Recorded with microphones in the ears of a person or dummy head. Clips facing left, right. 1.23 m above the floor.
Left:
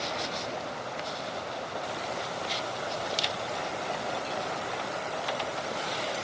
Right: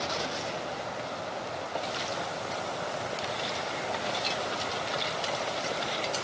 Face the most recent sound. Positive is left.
No sound to turn to.